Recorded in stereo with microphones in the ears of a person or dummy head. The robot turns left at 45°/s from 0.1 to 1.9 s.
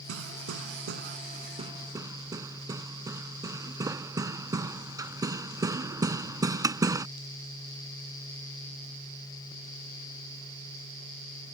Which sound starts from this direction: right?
Hammering, at 0.1 s.